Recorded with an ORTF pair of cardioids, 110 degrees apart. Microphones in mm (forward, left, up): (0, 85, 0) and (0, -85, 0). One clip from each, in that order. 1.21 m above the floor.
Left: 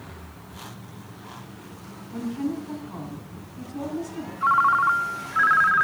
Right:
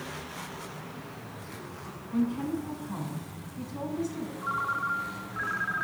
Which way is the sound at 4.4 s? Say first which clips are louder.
Left 12 dB; 55° left.